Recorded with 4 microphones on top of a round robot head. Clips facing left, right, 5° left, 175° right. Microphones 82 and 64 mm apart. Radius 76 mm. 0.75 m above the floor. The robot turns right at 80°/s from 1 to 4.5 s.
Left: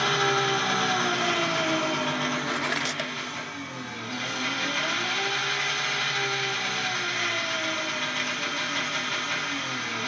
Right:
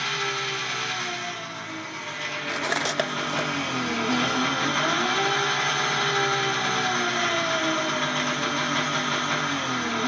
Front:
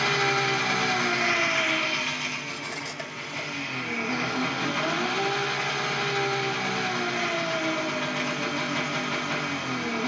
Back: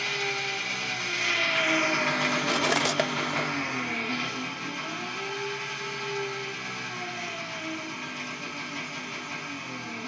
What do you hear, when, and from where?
0.0 s an engine running: 40° left, 0.9 m; by 10.1 s 40° right, 0.9 m
2.5 s cutlery clinking: 175° right, 0.6 m; by 3.5 s 100° right, 0.6 m